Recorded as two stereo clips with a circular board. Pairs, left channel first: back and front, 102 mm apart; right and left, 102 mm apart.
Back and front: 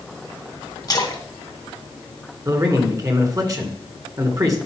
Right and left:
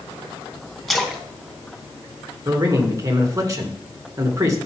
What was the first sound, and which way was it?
A splash, 175° right.